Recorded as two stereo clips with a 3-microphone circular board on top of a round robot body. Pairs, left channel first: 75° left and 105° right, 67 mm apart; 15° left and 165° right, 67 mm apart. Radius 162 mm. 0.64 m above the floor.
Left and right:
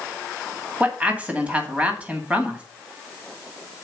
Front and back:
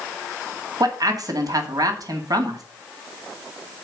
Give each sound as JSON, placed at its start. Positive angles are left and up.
{"t": 0.8, "sound": "a man speaking", "azimuth_deg": -175, "distance_m": 2.0}